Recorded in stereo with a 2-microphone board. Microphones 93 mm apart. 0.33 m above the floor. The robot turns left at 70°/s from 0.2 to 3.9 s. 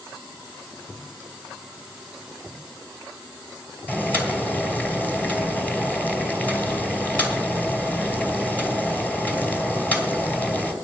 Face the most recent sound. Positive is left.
turn(degrees=15)  # may be behind; listen again after turning